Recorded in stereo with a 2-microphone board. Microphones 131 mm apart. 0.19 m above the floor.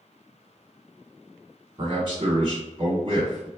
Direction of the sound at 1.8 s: 40° right (ahead or behind).